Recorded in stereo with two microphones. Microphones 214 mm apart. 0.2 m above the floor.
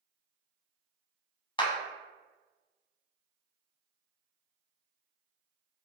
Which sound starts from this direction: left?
A clap, at 1.6 s.